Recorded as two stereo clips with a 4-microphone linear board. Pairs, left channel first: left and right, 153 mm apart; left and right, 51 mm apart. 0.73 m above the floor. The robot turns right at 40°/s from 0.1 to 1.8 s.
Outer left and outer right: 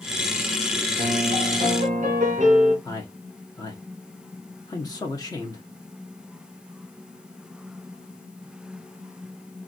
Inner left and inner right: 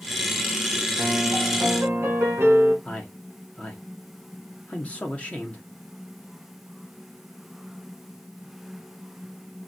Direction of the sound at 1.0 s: 85° right.